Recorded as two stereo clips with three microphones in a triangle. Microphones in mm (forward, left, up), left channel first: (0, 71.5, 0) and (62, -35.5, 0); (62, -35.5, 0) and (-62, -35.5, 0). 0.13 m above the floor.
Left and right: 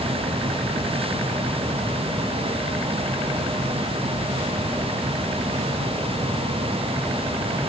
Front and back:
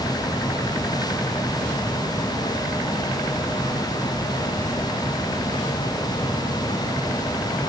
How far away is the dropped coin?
I don't hear a dropped coin.